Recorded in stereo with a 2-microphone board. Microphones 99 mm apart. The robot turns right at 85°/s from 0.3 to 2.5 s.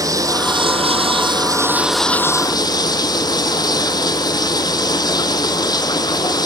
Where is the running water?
145° right, 0.8 m; by 6.5 s 45° left, 0.8 m.